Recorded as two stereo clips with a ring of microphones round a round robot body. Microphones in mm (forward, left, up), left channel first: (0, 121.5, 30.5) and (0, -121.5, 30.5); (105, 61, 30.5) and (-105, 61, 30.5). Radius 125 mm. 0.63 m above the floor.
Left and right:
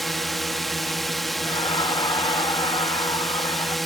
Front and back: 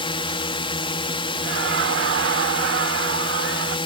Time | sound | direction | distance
0.0 | a drone | straight ahead | ?
1.4 | laughter | 160° left | ?